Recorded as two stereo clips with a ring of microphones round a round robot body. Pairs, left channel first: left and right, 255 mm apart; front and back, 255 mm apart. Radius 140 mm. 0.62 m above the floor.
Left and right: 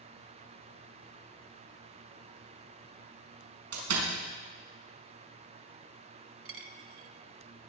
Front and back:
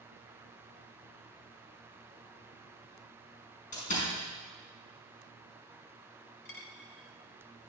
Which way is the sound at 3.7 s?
65° right.